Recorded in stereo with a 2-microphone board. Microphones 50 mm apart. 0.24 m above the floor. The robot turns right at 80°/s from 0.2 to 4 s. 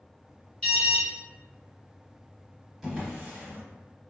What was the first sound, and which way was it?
An alarm, 20° left (ahead or behind).